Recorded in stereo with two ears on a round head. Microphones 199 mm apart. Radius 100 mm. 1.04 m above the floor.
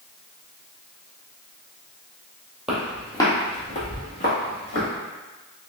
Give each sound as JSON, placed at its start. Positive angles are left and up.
{"t": 2.7, "sound": "footsteps", "side_deg": 0, "distance_m": 1.5}